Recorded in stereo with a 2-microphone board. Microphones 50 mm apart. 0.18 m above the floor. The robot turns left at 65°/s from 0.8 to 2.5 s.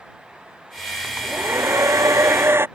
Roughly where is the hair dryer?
Ahead right.